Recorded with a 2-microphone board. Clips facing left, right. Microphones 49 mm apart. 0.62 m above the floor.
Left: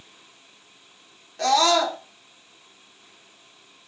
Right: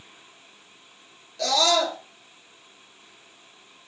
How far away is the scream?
About 1.5 m.